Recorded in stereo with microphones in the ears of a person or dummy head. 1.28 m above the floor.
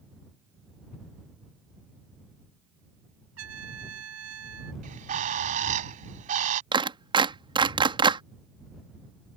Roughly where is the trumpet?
Right.